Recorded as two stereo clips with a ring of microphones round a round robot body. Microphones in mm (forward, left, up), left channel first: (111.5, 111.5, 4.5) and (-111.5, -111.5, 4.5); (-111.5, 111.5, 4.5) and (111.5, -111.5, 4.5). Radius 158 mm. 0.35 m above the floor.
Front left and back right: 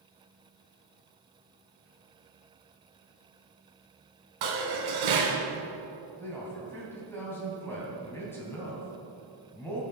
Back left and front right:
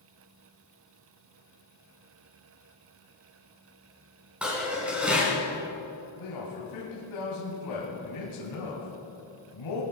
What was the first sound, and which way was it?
Dishes clattering, 130° right.